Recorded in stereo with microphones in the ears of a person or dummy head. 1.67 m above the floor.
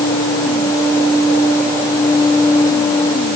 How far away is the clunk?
No clunk in this recording.